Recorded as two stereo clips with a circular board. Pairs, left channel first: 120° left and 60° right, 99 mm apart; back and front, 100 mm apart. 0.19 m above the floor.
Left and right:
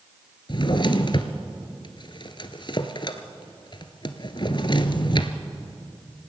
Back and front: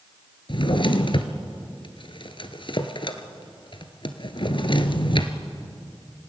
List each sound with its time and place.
0.5 s a drawer: 155° left, 1.4 m